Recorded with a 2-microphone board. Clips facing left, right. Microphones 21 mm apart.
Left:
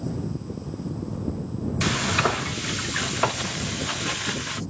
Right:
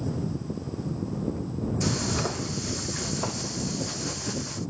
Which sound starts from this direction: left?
Frying, at 1.8 s.